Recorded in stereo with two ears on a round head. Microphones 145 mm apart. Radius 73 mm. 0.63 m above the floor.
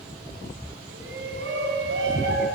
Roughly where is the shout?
Right.